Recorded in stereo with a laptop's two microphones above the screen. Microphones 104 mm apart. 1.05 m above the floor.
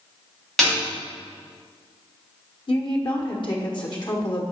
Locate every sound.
0.6 s a snare drum: 5° left (ahead or behind), 2.5 m
2.7 s a woman speaking: 50° left (ahead or behind), 1.1 m